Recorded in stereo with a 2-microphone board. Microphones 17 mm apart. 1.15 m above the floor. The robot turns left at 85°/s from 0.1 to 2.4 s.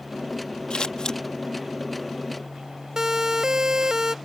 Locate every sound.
0.7 s scissors: 85° left; by 1.2 s 45° left (ahead or behind)
3.0 s a siren: 40° right (ahead or behind); by 4.2 s 45° right (ahead or behind)